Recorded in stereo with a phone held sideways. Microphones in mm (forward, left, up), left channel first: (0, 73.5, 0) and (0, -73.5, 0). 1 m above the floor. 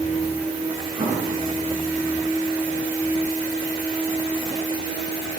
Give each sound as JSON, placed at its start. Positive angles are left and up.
{"t": 1.0, "sound": "an explosion", "side_deg": -35, "distance_m": 8.0}